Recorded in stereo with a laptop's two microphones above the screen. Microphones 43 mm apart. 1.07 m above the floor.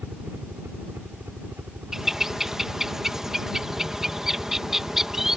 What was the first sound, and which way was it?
A helicopter, 65° right (ahead or behind).